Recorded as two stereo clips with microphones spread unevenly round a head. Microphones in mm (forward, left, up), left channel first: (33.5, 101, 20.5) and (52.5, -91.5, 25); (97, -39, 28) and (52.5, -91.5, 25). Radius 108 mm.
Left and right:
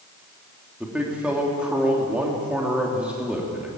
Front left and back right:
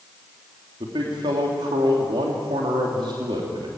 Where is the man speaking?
170° right, 3 m.